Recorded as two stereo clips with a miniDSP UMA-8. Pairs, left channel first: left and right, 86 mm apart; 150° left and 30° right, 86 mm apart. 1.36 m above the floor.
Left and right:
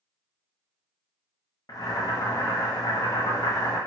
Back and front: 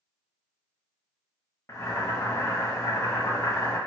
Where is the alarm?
No alarm in this recording.